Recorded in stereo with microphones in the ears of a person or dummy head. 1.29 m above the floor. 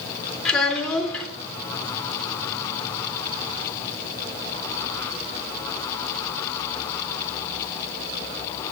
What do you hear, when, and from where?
0.5 s a child speaking: 5° left (ahead or behind), 3 m